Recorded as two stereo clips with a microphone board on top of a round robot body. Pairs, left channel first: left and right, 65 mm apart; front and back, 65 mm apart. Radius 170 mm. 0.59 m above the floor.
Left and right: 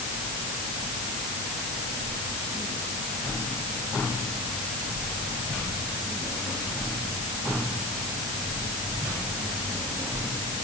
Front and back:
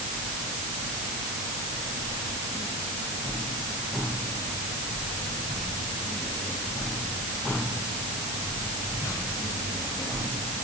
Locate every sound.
Only background noise.